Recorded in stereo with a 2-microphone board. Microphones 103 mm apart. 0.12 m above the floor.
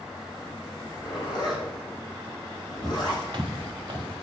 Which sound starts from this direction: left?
A zipper, at 0.7 s.